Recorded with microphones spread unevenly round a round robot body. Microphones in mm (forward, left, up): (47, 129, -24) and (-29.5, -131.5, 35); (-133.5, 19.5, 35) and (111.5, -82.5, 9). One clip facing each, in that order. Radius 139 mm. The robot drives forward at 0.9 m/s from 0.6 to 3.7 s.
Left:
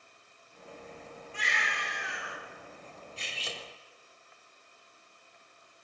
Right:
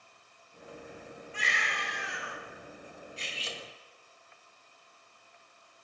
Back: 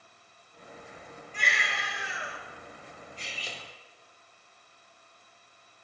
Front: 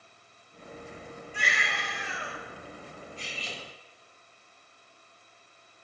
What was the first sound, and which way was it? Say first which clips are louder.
A baby crying: right 1 dB, even; 105° right.